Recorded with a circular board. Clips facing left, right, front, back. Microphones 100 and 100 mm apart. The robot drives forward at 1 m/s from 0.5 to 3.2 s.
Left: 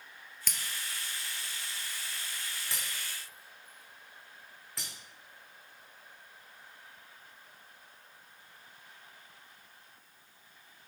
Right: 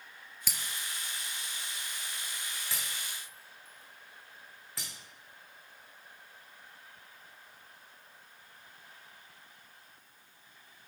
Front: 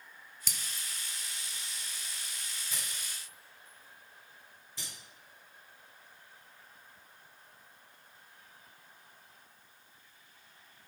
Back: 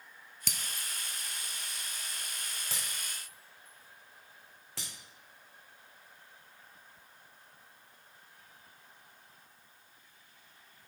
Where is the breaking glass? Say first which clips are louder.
Even, back 3 dB; 170° right, 0.7 m; by 4.9 s straight behind, 3.5 m.